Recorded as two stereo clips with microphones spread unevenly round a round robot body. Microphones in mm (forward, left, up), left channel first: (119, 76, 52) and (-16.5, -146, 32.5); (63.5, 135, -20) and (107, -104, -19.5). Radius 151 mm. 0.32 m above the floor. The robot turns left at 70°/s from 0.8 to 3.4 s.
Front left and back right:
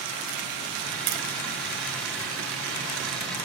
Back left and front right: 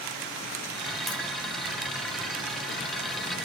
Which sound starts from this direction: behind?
Tapping, at 1.1 s.